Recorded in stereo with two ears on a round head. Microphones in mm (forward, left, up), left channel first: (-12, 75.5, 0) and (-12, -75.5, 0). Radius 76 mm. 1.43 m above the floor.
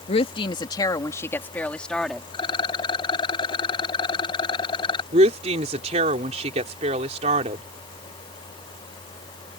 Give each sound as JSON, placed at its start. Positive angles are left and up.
{"t": 0.1, "sound": "a woman speaking", "side_deg": 40}
{"t": 2.3, "sound": "a rattle", "side_deg": 30}
{"t": 5.1, "sound": "a woman speaking", "side_deg": -40}